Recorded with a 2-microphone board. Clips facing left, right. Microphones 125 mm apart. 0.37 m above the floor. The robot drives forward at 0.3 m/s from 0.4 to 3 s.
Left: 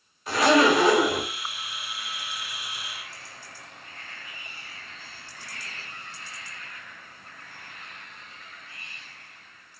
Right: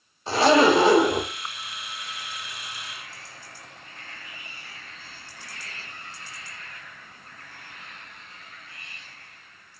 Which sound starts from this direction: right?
A zipper, at 0.3 s.